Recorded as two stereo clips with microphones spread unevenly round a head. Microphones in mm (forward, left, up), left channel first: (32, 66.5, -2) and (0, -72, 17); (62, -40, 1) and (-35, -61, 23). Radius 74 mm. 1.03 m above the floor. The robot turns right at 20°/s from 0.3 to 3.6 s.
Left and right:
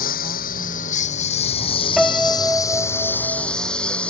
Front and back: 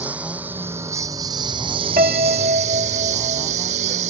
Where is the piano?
165° left; by 3.5 s 165° right.